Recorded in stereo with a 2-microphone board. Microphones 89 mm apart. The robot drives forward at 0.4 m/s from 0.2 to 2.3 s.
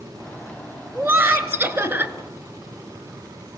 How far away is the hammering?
No hammering in this recording.